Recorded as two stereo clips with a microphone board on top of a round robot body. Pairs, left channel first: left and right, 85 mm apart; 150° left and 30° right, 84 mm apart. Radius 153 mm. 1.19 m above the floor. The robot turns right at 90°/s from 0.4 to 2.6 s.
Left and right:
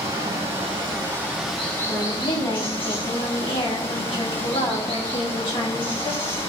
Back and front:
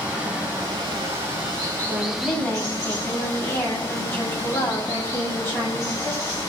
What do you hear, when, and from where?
0.0 s running water: 105° right, 5.5 m; by 6.5 s 95° left, 5.5 m
1.9 s a woman speaking: 25° left, 7.5 m; by 6.4 s 85° left, 7.5 m